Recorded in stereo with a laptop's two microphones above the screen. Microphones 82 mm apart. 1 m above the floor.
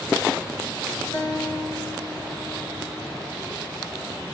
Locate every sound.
1.1 s a guitar: 50° left (ahead or behind), 2.5 m